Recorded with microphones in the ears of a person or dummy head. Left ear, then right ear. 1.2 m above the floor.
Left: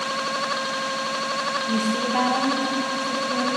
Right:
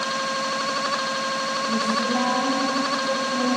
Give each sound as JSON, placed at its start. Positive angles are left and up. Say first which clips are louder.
{"t": 1.7, "sound": "a woman speaking", "louder": "right 1 dB", "side_deg": 60, "distance_m": 0.6}